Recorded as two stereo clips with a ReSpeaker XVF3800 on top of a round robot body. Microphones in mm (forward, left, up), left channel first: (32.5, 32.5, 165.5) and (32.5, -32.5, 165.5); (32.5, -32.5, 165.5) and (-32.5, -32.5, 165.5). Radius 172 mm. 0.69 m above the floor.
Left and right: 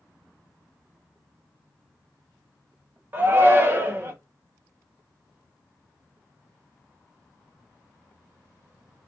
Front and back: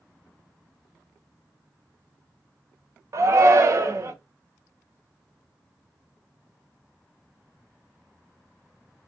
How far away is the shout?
About 0.8 m.